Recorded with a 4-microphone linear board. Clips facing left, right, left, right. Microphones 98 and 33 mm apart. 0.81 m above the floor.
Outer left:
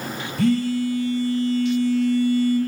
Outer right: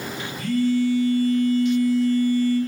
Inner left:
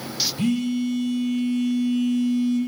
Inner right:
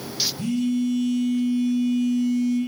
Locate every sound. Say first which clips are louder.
0.4 s a phone buzzing: outer left 1 dB, even; 80° left, 0.9 m